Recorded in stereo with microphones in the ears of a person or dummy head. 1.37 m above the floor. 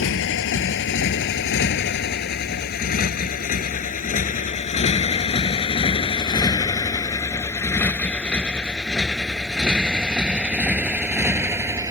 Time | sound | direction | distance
0.0 | a motorcycle | 60° left (ahead or behind) | ?